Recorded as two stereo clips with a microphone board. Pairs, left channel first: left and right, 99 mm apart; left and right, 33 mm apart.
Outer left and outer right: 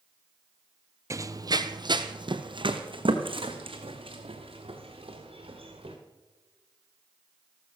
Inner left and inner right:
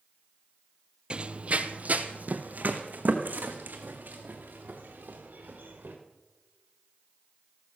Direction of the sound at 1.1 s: 30° right (ahead or behind).